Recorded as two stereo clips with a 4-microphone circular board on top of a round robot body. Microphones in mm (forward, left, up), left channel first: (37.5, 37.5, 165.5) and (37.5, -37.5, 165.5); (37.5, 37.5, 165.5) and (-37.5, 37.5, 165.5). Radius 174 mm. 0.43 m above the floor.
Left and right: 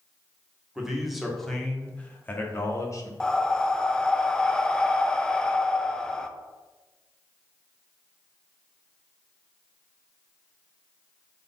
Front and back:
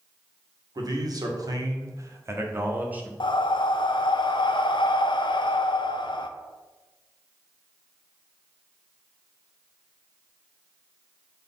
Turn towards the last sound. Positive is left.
turn(degrees=10)